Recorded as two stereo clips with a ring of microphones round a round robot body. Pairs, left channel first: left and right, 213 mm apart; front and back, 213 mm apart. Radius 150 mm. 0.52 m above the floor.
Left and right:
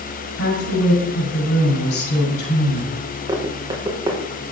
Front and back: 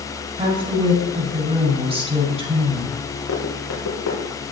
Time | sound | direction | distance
0.4 | a woman speaking | 120° left | 5.5 m
3.3 | running footsteps | 20° right | 4 m